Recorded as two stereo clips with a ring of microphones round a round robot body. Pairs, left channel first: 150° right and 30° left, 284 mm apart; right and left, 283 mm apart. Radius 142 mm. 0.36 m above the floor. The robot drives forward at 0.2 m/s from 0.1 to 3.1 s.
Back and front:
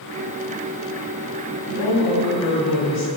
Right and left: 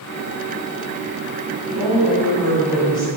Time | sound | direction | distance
1.7 | a woman speaking | 160° right | 1.9 m